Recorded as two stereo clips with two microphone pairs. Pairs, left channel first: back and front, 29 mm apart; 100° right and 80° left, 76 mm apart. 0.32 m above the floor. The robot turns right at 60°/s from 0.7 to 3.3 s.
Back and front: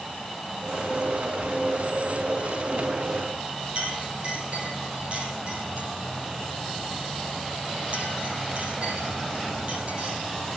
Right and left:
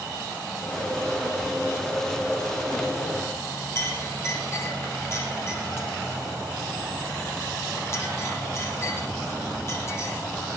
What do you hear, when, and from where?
3.8 s a clink: 50° right, 6 m